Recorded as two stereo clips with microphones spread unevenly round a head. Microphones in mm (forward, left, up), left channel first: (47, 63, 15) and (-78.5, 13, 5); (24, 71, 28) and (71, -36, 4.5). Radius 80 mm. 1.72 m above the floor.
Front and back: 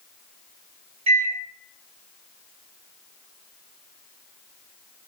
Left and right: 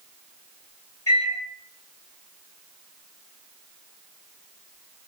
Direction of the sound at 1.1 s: 170° left.